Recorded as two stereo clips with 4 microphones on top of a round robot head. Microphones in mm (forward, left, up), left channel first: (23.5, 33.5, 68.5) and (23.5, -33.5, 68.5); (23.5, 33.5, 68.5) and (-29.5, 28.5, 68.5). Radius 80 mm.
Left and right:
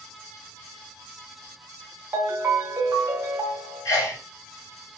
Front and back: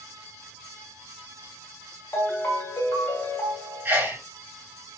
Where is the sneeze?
135° left, 3 m.